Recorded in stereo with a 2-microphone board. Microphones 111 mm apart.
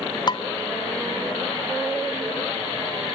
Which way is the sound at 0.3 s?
40° left (ahead or behind).